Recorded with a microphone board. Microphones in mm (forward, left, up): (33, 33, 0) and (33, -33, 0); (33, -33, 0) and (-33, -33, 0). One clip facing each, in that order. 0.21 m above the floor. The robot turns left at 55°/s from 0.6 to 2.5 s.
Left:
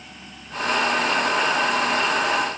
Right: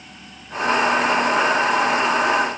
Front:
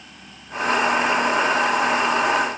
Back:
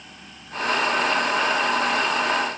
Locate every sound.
Only background noise.